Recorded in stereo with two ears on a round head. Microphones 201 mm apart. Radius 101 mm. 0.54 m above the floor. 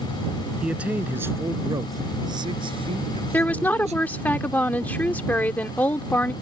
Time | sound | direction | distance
0.6 | a man speaking | 5° right (ahead or behind) | ?
3.3 | a woman speaking | 5° left (ahead or behind) | ?